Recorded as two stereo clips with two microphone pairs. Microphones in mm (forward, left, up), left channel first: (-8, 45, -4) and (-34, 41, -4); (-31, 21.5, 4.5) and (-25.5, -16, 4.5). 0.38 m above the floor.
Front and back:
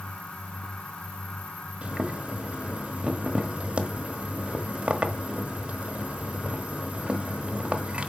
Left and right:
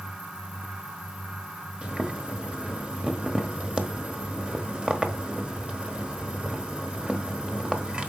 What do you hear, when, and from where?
1.8 s boiling: 140° right, 1.3 m